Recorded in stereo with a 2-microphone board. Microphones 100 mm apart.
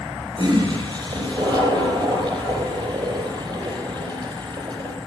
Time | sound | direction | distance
0.3 | a toilet flushing | 55° right (ahead or behind) | 5 m